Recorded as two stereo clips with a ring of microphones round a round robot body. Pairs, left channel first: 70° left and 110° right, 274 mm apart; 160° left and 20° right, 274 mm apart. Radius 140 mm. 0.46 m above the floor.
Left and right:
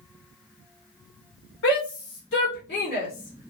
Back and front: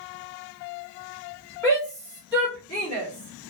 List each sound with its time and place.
1.6 s a shout: 80° left, 2 m; by 3.5 s 115° left, 1.7 m